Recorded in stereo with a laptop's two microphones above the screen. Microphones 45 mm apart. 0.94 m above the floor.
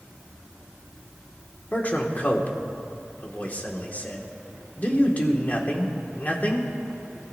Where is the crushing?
I don't hear crushing.